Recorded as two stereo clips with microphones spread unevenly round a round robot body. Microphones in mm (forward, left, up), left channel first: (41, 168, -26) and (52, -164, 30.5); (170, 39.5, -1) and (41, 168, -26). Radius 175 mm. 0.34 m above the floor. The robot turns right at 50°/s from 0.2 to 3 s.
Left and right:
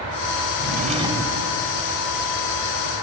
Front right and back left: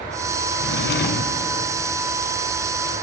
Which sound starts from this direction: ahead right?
A drawer, at 0.6 s.